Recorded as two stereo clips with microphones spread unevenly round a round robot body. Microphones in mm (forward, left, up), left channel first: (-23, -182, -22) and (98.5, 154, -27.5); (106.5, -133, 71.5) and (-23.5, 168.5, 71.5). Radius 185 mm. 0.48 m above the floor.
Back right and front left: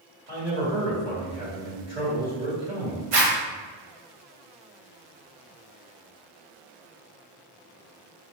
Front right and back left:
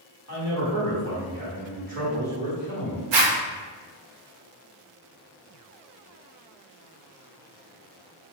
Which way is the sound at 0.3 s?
135° left.